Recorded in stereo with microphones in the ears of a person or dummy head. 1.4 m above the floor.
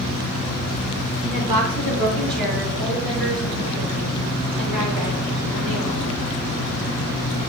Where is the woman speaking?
45° right (ahead or behind), 1.3 m; by 6.0 s 85° right, 4.5 m.